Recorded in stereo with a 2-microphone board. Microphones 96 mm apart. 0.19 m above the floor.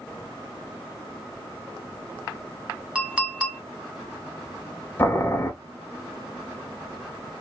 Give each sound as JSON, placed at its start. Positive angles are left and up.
{"t": 3.0, "sound": "a clink", "side_deg": -15, "distance_m": 0.7}
{"t": 5.0, "sound": "boiling", "side_deg": 20, "distance_m": 0.9}